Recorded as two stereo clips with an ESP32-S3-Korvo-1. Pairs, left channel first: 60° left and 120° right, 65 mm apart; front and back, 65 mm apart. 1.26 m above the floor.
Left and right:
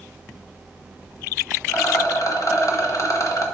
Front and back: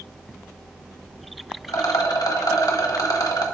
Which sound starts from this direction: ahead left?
A rattle, at 1.7 s.